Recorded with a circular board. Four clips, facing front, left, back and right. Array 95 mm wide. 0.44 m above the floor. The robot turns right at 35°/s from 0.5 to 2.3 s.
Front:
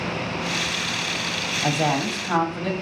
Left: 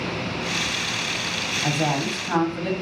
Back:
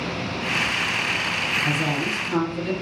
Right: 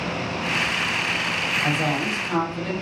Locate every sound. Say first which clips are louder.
1.6 s a woman speaking: left 1 dB, front 5 dB; 10° right, 1.7 m; by 2.7 s 10° left, 1.7 m